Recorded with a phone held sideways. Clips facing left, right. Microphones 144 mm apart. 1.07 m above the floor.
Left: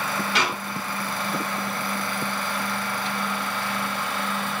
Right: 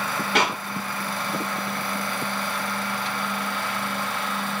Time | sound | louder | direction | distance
0.3 | a clap | right 5 dB | 55° right (ahead or behind) | 3 m